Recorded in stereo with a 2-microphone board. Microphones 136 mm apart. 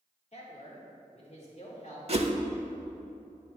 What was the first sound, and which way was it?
A man speaking, 50° left (ahead or behind).